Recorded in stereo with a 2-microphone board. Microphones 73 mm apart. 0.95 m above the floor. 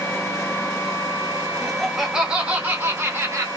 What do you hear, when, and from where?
1.6 s laughter: 5° left (ahead or behind), 1.2 m; by 3.5 s 45° right (ahead or behind), 1.2 m